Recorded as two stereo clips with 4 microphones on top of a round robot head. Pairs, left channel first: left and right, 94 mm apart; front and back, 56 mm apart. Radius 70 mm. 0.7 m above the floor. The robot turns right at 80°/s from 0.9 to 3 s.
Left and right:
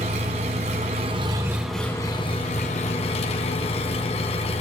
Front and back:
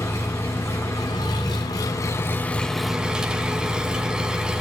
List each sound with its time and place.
0.0 s an engine running: 65° right, 1.5 m; by 4.6 s 105° left, 1.5 m